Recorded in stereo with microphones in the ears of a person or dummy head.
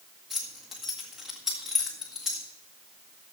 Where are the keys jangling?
5° right (ahead or behind), 1.8 m.